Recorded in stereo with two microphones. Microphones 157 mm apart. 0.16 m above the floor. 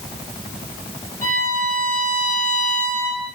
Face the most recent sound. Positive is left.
turn(degrees=-55)  # may be behind; listen again after turning